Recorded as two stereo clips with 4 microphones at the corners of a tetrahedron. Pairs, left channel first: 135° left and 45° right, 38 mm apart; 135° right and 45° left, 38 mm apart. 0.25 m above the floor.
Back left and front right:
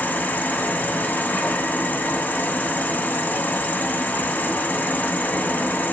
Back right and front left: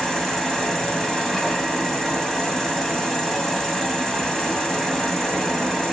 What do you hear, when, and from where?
0.0 s an insect: 150° left, 0.8 m